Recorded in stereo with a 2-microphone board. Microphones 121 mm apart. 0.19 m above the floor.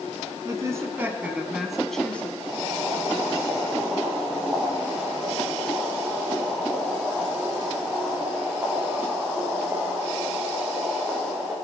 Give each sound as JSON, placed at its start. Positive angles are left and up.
{"t": 0.5, "sound": "a woman speaking", "side_deg": -30, "distance_m": 1.4}
{"t": 2.4, "sound": "boiling", "side_deg": -10, "distance_m": 5.5}